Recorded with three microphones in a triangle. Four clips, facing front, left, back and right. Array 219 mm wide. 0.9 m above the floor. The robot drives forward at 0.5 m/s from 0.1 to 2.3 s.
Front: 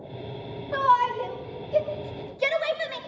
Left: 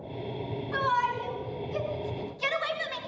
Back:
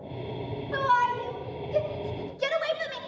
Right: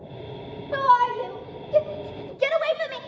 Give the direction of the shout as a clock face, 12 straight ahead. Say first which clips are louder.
Right 8 dB, front 3 dB; 2 o'clock.